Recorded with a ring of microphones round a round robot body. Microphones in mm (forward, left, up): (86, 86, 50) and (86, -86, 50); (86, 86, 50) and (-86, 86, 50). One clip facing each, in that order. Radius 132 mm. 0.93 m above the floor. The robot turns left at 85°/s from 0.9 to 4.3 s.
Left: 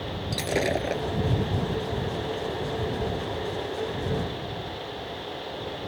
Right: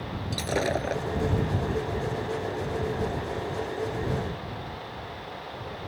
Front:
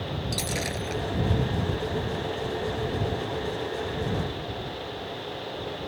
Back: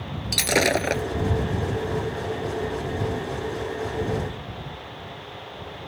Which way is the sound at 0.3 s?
170° left.